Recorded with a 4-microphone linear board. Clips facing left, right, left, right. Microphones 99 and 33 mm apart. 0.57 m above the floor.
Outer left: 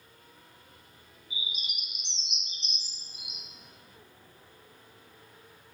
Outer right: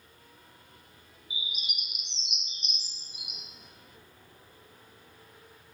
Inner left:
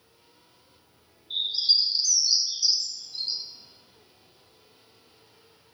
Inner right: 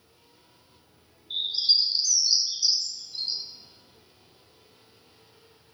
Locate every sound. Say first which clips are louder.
1.3 s a bird: even, even; 5° right (ahead or behind), 1.3 m